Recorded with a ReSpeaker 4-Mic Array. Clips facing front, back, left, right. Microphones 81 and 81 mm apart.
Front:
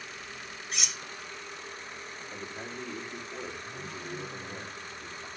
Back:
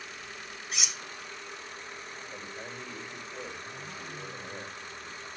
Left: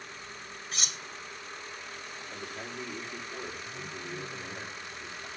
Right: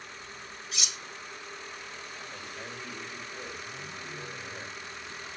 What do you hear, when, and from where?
0.7 s cutlery clinking: 95° left, 0.5 m
2.3 s a man speaking: 30° left, 3.5 m